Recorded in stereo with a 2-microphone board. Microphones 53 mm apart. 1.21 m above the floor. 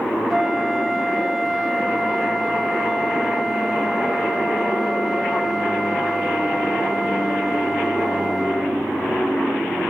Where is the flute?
5° right (ahead or behind), 1.3 m.